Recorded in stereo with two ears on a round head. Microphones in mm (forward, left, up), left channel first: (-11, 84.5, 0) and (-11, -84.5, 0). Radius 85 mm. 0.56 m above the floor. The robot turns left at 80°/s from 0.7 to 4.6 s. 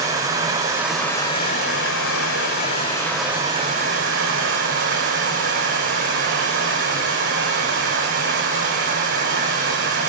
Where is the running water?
160° right, 6 m; by 10.1 s 110° right, 6 m.